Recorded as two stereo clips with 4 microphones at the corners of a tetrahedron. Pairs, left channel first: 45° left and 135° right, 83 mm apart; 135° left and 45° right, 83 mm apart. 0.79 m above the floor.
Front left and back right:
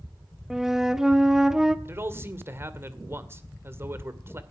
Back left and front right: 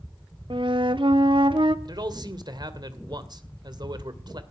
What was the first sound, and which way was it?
A flute, 50° right.